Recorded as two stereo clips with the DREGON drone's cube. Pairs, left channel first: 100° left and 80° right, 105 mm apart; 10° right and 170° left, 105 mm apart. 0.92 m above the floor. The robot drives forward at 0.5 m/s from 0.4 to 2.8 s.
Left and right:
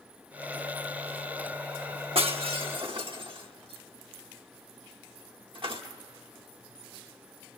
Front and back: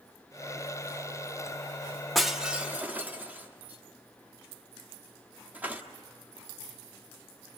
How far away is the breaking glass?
About 1.1 m.